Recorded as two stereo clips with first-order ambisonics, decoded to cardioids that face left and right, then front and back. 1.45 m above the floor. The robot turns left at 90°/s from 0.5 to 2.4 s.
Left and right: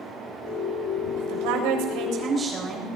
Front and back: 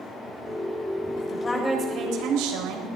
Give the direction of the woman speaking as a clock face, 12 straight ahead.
2 o'clock.